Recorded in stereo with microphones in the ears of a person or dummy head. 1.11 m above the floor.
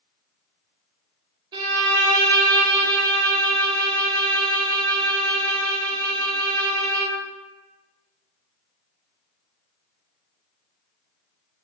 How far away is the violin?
About 0.8 m.